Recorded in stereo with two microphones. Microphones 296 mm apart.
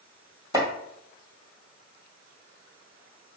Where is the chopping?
10° right (ahead or behind), 1.1 m.